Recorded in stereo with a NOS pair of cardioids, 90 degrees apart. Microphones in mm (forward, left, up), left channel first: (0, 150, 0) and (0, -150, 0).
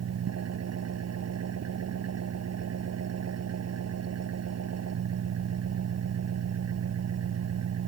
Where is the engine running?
55° right.